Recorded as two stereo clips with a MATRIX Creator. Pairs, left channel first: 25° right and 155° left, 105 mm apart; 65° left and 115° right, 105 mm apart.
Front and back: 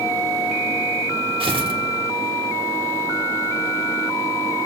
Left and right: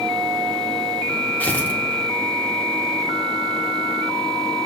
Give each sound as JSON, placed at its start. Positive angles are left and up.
{"t": 1.4, "sound": "tearing paper", "azimuth_deg": 140, "distance_m": 1.1}